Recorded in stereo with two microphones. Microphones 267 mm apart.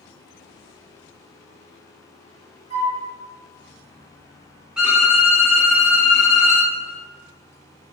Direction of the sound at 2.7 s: 55° left (ahead or behind).